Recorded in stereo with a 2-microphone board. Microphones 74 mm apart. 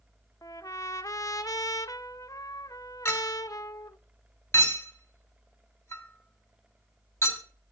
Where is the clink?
30° left (ahead or behind), 2.5 m.